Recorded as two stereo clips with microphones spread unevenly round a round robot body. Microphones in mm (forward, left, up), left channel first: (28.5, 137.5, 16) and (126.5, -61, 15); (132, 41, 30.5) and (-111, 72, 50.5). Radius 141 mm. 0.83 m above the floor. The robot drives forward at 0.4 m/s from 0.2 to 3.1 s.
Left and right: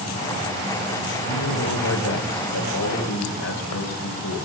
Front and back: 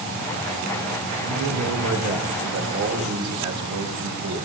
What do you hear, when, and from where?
1.3 s a man speaking: 140° left, 3 m; by 4.5 s 150° left, 3.5 m